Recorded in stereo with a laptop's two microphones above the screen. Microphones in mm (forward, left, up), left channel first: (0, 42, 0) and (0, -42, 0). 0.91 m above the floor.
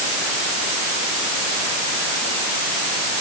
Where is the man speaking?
I don't hear a man speaking.